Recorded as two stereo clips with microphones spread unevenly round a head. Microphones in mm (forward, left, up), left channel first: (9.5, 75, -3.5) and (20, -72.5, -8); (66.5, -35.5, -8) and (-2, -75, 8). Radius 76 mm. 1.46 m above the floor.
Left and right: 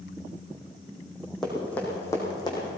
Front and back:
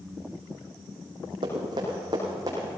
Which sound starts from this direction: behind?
Running footsteps, at 1.4 s.